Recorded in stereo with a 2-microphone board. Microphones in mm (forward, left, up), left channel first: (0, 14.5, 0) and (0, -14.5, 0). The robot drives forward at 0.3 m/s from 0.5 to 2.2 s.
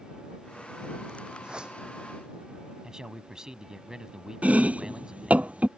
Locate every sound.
1.4 s a whoosh: 30° right (ahead or behind)
2.8 s a man speaking: 25° right (ahead or behind)
4.4 s chopping: 60° right (ahead or behind)